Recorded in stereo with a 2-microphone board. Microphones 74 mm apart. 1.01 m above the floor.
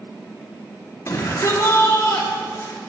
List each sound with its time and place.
1.1 s a shout: 45° left (ahead or behind), 3 m